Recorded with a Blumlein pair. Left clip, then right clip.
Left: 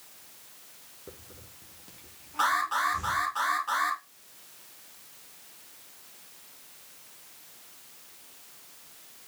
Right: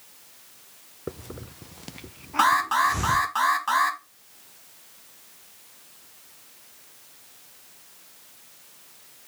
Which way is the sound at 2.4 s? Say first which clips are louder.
Right 6 dB; 60° right.